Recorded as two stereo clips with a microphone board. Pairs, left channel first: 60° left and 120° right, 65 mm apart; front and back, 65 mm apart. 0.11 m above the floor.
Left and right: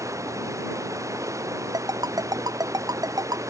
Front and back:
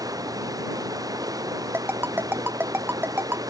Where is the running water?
160° right.